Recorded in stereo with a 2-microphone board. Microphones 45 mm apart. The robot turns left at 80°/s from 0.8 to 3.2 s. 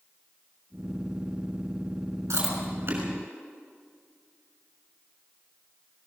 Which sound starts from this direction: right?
Chewing, at 2.3 s.